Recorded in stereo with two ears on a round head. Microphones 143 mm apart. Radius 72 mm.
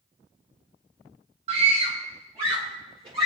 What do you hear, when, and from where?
1.5 s a scream: 35° right (ahead or behind), 0.9 m